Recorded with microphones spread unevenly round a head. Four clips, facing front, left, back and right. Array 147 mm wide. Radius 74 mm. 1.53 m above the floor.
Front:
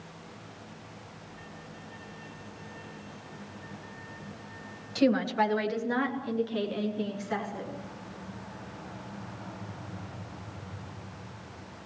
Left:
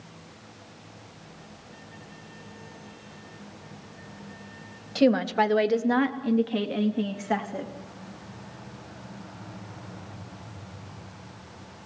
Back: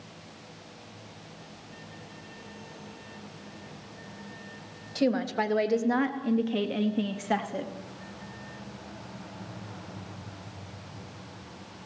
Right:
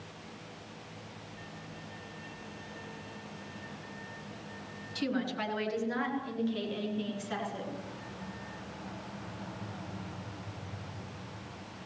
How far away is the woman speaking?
About 2.5 m.